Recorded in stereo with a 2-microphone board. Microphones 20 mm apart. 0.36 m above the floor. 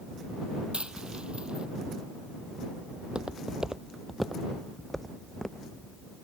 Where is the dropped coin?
70° right (ahead or behind).